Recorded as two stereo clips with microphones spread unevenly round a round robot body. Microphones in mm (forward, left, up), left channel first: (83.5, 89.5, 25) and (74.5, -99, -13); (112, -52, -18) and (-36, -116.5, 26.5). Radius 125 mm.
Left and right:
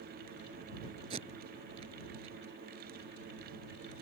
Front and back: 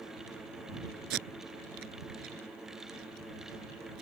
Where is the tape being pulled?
160° right.